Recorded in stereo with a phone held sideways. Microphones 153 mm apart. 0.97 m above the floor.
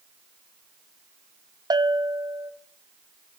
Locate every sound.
1.7 s a bell: 25° right (ahead or behind), 0.8 m